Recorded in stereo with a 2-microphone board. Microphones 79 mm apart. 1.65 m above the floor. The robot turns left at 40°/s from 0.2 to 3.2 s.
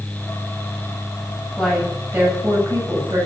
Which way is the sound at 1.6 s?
5° left.